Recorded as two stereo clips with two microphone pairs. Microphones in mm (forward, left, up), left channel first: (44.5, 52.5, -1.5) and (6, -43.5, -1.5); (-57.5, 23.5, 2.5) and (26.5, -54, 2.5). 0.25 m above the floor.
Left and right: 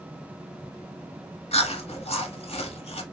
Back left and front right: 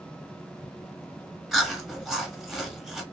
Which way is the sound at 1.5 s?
45° left.